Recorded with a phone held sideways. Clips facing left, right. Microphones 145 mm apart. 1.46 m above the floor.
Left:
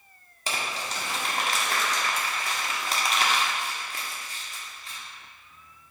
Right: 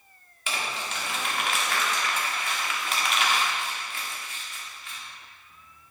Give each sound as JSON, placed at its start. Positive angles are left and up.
{"t": 0.5, "sound": "crumpling", "side_deg": 40, "distance_m": 1.2}